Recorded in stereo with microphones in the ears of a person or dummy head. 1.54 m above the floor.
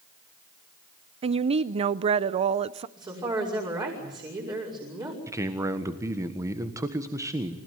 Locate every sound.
1.2 s a woman speaking: 35° right (ahead or behind), 0.6 m
3.0 s a woman speaking: 20° right (ahead or behind), 6 m
5.3 s a man speaking: 15° right (ahead or behind), 1.5 m